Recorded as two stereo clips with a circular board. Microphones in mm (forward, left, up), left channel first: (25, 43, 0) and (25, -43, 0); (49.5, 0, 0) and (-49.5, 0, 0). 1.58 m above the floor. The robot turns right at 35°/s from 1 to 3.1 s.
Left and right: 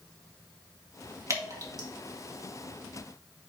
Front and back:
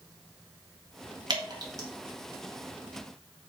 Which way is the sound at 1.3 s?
145° right.